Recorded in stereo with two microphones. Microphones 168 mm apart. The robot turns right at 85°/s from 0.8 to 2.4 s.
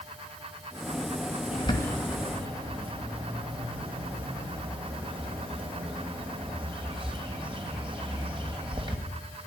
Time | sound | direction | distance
1.5 | a bird | 135° left | 2.5 m